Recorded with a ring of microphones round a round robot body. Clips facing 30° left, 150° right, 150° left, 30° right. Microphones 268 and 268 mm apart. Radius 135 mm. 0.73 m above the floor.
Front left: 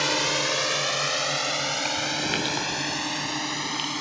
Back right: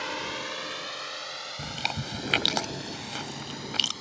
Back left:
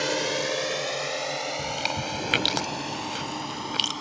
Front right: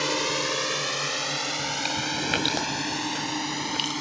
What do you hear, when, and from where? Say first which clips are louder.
0.0 s a drone: front left 8 dB, back left 1 dB; 45° left; by 4.0 s 20° left
1.6 s chewing: front left 6 dB, even; 125° right